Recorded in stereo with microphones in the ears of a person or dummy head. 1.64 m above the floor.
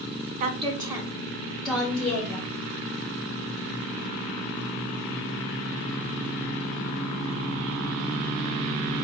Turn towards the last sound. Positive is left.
turn(degrees=10)  # may be behind; listen again after turning